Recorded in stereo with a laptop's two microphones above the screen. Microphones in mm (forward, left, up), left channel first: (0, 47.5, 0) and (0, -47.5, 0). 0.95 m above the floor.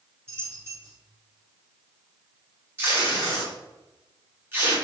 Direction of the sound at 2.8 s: 25° right (ahead or behind).